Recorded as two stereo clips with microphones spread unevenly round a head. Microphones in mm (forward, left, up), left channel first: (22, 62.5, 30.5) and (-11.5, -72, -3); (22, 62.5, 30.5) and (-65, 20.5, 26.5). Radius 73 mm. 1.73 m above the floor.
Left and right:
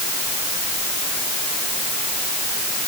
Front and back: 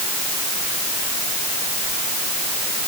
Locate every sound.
Only background noise.